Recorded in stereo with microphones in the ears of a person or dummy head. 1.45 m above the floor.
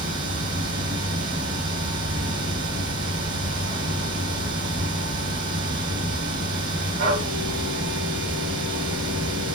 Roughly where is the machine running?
Right.